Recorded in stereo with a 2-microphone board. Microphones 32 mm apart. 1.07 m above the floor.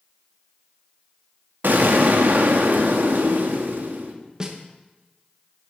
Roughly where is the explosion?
Right.